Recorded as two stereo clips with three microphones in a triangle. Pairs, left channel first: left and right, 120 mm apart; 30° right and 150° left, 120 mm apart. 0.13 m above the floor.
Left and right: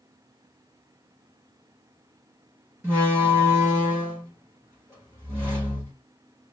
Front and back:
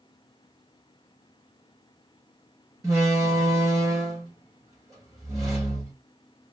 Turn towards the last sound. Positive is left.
turn(degrees=-155)